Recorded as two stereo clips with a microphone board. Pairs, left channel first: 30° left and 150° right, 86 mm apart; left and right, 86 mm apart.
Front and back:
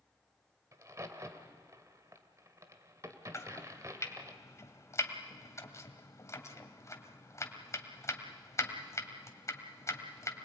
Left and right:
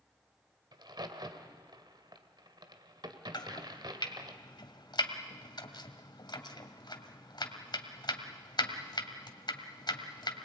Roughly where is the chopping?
Left.